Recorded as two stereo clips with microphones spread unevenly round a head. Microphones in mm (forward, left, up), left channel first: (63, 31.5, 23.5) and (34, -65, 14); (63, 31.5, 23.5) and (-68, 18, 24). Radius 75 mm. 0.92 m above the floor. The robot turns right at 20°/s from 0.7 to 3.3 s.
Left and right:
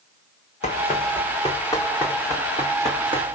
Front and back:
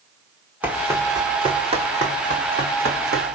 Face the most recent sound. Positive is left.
turn(degrees=-160)